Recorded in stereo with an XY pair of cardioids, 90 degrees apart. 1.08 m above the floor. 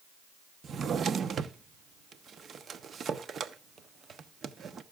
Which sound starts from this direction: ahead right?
A drawer, at 0.6 s.